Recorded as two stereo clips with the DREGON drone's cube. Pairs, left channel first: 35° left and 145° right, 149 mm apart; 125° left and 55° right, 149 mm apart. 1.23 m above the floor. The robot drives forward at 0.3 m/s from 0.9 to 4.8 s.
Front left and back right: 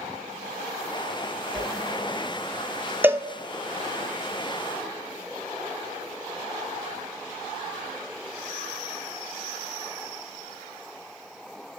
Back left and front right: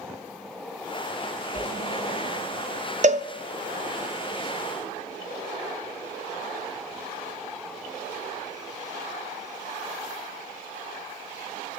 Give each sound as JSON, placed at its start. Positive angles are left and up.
{"t": 1.5, "sound": "a whoosh", "azimuth_deg": 115, "distance_m": 1.4}
{"t": 3.0, "sound": "a cowbell", "azimuth_deg": -70, "distance_m": 0.5}